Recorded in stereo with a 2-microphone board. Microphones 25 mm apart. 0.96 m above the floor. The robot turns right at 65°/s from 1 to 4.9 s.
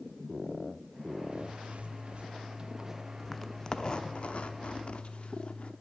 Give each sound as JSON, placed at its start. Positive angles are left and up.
{"t": 1.3, "sound": "a zipper", "azimuth_deg": -125, "distance_m": 0.7}